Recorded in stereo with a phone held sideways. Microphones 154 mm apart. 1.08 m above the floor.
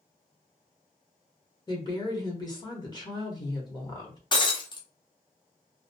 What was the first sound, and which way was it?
A woman speaking, 25° left (ahead or behind).